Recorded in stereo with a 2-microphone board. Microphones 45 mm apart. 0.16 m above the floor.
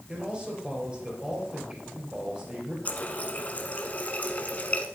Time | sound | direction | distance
0.1 | a man speaking | 25° right (ahead or behind) | 4.5 m
2.9 | a running tap | 35° left (ahead or behind) | 1.2 m